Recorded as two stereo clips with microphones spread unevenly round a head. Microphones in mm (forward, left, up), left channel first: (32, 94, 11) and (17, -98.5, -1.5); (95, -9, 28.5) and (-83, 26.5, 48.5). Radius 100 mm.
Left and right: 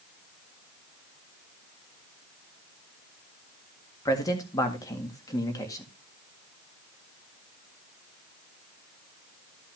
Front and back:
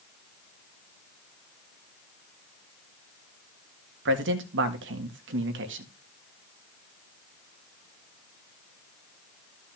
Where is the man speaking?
160° left, 1.6 m.